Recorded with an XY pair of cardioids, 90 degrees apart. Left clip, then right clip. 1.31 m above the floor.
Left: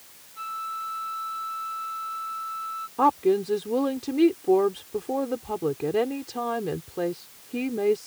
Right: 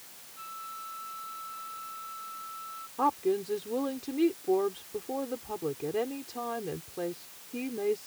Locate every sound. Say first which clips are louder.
0.4 s a flute: left 10 dB; 65° left
3.0 s a woman speaking: left 7 dB; 55° left